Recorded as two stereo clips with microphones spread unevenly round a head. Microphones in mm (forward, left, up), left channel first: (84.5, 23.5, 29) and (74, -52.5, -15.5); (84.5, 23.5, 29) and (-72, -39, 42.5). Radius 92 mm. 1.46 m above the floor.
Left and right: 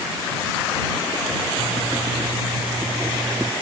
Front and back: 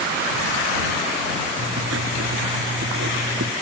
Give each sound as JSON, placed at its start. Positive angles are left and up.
{"t": 1.6, "sound": "writing", "azimuth_deg": 180}